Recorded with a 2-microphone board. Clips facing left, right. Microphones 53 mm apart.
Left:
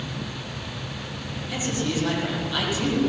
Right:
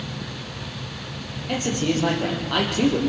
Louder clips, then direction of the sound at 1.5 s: Right 4 dB; 55° right (ahead or behind).